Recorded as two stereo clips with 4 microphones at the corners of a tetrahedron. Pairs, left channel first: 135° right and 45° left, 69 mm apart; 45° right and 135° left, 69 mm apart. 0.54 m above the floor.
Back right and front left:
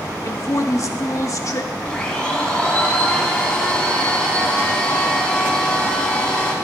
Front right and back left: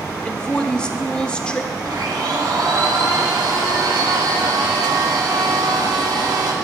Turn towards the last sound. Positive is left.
turn(degrees=150)